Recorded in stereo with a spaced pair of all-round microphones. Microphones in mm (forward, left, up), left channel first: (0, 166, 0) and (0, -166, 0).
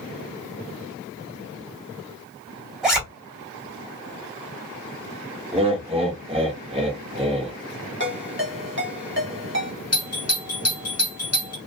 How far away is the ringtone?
About 1.1 m.